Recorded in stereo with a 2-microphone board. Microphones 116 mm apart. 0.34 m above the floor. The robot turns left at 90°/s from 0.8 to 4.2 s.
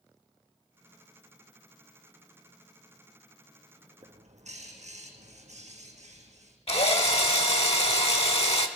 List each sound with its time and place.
4.0 s a bird: 70° right (ahead or behind), 3 m; by 6.6 s 85° right, 3 m
6.7 s a drill: 60° left (ahead or behind), 1.3 m